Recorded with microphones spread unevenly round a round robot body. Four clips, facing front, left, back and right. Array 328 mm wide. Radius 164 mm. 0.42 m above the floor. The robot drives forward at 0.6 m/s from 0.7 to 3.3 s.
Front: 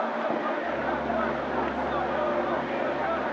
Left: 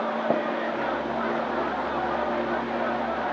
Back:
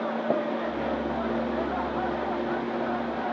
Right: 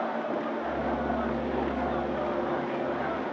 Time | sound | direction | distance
0.3 | tapping | 100° left | 1.4 m